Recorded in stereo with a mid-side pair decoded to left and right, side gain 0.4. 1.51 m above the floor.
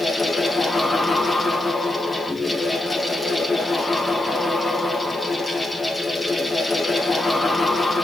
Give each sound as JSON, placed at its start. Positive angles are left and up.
{"t": 0.0, "sound": "a fan", "azimuth_deg": 25, "distance_m": 2.0}